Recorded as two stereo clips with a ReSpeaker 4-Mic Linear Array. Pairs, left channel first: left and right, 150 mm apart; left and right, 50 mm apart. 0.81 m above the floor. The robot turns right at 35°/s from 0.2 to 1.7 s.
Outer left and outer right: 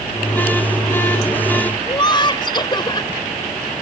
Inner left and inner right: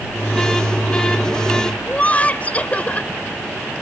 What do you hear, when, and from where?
1.9 s laughter: 30° left (ahead or behind)